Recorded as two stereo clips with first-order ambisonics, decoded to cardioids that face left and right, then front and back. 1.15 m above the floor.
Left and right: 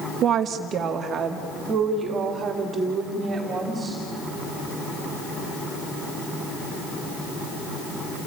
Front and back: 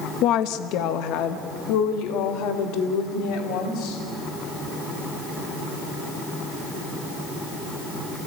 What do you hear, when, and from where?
0.2 s a woman speaking: 35° right, 0.9 m; by 4.0 s 20° right, 3.5 m